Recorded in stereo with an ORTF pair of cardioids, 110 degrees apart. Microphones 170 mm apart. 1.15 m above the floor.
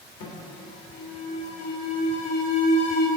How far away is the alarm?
About 1.3 m.